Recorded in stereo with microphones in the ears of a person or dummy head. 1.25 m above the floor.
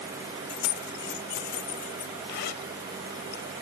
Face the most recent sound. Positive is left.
turn(degrees=50)  # may be behind; listen again after turning